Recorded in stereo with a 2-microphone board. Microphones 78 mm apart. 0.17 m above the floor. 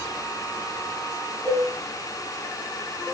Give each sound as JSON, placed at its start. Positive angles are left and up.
{"t": 1.4, "sound": "dishes clattering", "side_deg": 0, "distance_m": 3.0}